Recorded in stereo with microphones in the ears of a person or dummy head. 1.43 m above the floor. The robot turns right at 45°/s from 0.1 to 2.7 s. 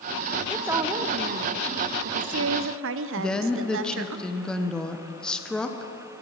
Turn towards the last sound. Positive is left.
turn(degrees=5)  # may be behind; listen again after turning